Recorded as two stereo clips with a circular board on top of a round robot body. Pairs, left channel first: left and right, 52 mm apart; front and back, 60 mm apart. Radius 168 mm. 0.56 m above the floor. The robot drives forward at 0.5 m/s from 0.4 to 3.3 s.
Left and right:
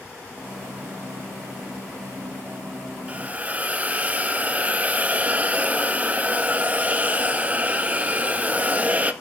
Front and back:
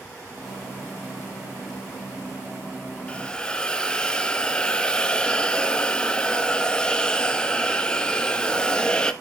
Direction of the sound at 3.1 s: 55° right.